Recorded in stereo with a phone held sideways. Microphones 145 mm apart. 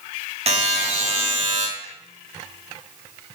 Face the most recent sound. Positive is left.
turn(degrees=-45)  # may be behind; listen again after turning